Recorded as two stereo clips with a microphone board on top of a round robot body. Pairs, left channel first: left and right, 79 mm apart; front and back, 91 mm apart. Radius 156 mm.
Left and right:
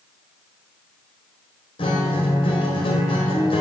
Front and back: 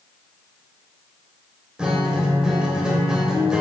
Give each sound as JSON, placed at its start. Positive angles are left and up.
{"t": 1.8, "sound": "a guitar", "azimuth_deg": 95, "distance_m": 1.2}